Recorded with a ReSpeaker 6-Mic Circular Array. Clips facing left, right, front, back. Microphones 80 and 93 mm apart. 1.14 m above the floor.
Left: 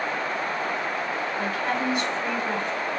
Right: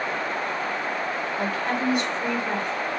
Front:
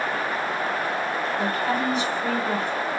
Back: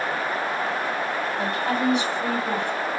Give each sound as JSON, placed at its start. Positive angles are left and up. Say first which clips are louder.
{"t": 1.4, "sound": "a woman speaking", "louder": "right 1 dB, back 1 dB", "azimuth_deg": -170, "distance_m": 3.5}